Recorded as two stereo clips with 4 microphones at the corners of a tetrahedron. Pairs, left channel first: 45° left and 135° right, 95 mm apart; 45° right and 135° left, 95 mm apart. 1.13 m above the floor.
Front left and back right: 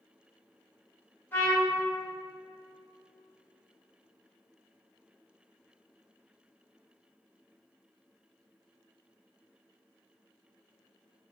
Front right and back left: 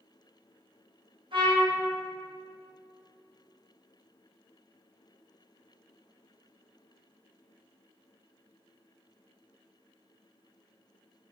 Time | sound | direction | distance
1.3 | a trumpet | 115° left | 2.5 m